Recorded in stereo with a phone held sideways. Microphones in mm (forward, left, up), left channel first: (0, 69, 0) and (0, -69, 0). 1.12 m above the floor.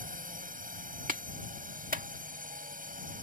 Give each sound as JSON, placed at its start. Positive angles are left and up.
{"t": 0.0, "sound": "a drone", "side_deg": -80}
{"t": 1.1, "sound": "a clap", "side_deg": -85}